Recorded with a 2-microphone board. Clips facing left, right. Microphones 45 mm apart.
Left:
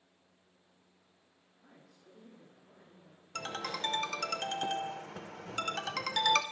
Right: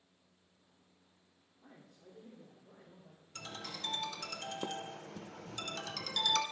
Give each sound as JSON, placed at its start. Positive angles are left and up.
{"t": 1.6, "sound": "a man speaking", "side_deg": -30, "distance_m": 1.7}
{"t": 3.4, "sound": "a ringtone", "side_deg": 60, "distance_m": 0.5}